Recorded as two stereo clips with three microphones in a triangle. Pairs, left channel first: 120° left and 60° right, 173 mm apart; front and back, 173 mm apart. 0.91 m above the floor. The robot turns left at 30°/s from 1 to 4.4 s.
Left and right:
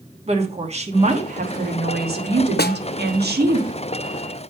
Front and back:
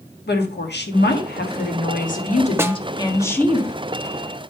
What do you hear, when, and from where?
0.3 s a woman speaking: 5° right, 1.4 m; by 3.6 s 85° right, 1.4 m
2.6 s a snare drum: 105° left, 0.5 m; by 2.8 s 100° left, 0.5 m